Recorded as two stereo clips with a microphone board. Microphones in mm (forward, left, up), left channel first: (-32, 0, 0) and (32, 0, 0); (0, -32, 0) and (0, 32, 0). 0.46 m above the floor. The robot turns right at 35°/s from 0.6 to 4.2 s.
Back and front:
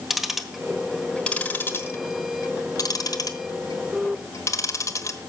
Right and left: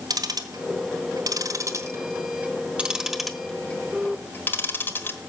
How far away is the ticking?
About 1.2 m.